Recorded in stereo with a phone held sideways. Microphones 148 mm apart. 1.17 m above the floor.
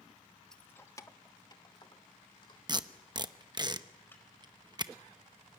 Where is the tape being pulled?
30° right (ahead or behind), 0.8 m.